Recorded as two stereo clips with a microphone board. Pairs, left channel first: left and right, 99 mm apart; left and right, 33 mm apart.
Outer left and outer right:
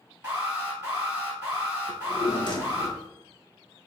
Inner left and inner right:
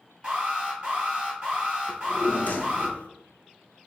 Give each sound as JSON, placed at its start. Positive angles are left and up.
{"t": 0.2, "sound": "an alarm", "side_deg": -20, "distance_m": 2.0}
{"t": 1.9, "sound": "a drawer", "side_deg": 50, "distance_m": 0.7}